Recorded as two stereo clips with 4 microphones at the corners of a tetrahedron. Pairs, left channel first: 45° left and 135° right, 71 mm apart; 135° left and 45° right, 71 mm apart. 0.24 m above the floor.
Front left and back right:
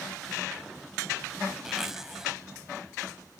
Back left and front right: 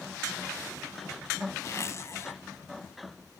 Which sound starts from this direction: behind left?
A zipper, at 1.6 s.